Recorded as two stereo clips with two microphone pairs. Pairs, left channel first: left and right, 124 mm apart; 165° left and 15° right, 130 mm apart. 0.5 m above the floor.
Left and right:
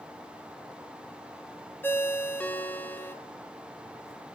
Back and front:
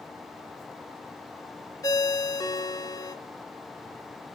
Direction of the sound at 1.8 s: 145° left.